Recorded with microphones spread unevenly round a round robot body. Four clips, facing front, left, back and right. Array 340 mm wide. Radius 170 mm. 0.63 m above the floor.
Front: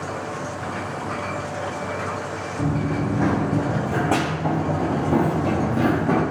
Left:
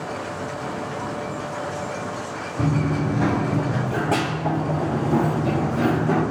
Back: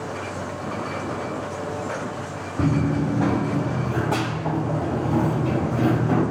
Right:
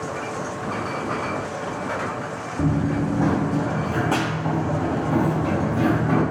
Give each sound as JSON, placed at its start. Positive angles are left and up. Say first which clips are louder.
{"t": 2.6, "sound": "running footsteps", "louder": "right 1 dB, back 3 dB", "azimuth_deg": -175, "distance_m": 0.6}